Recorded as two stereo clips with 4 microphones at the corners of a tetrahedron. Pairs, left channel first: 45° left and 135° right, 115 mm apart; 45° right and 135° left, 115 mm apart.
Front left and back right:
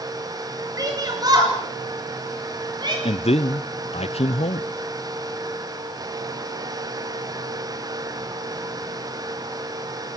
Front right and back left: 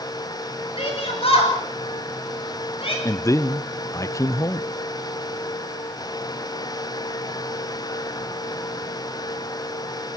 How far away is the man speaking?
About 0.7 m.